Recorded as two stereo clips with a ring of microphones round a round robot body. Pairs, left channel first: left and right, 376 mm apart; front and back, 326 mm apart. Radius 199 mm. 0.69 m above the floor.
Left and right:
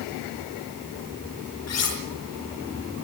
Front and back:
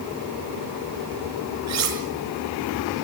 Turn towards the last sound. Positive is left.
turn(degrees=140)